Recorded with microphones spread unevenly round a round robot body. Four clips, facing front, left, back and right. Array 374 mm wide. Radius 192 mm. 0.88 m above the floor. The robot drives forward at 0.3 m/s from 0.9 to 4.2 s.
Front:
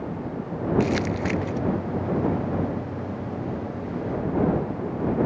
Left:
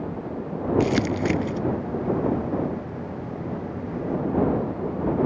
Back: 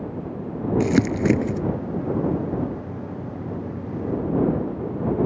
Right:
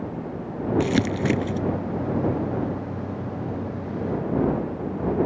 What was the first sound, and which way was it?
Crumpling, 170° right.